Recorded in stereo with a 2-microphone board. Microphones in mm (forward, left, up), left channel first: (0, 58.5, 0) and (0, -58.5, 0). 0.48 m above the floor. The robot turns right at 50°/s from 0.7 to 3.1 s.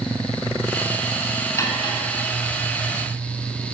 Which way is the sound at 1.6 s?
25° left (ahead or behind).